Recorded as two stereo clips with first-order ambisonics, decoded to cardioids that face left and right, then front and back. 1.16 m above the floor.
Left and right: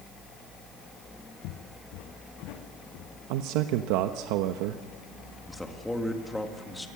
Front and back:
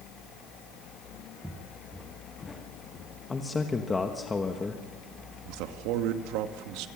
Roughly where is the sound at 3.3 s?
Right.